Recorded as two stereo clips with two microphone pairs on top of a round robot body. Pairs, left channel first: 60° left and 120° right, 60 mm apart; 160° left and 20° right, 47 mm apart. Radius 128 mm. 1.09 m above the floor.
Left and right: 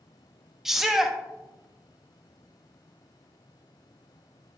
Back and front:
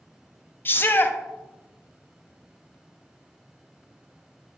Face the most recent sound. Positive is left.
turn(degrees=165)